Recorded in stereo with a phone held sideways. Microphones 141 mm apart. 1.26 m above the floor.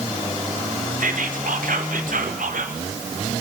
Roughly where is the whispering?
Right.